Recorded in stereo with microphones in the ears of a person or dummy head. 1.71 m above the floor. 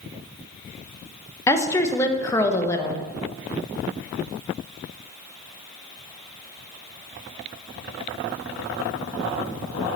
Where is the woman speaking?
15° left (ahead or behind), 0.7 m.